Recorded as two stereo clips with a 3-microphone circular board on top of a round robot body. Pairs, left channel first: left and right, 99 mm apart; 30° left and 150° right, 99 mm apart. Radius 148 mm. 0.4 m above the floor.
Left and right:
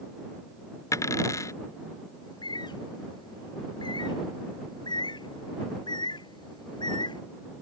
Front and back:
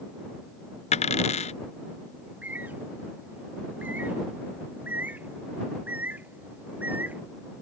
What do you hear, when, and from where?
0.9 s a dropped coin: 25° left
2.2 s a bird: 135° left